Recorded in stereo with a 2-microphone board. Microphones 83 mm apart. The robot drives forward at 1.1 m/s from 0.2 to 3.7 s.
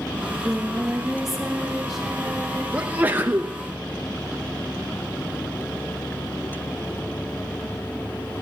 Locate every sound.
0.2 s singing: 10° right (ahead or behind), 0.6 m; by 2.6 s centre (ahead or behind), 3 m
2.7 s a sneeze: 15° right (ahead or behind), 0.7 m